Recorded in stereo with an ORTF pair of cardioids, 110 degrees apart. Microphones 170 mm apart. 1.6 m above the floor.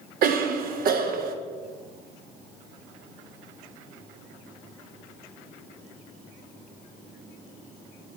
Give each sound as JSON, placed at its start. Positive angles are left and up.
{"t": 0.2, "sound": "a cough", "azimuth_deg": -60, "distance_m": 1.0}